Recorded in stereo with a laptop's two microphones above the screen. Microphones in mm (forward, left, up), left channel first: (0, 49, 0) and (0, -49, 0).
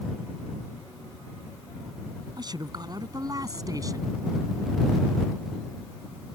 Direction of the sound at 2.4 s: 45° right (ahead or behind).